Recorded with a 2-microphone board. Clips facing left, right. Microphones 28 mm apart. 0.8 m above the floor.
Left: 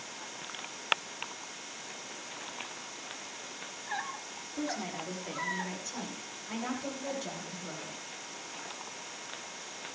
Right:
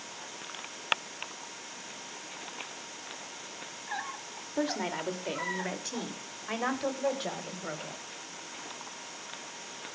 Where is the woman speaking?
70° right (ahead or behind), 3 m; by 8.0 s 60° right (ahead or behind), 5 m.